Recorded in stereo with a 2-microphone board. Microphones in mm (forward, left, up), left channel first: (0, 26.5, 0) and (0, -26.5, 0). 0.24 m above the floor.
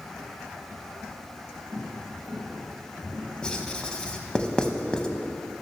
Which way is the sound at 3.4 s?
20° left (ahead or behind).